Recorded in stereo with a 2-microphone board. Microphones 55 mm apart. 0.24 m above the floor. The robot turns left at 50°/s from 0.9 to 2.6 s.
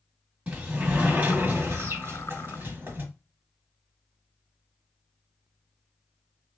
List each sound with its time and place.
0.5 s a sliding door: 35° right, 1.3 m; by 3.0 s 120° right, 1.3 m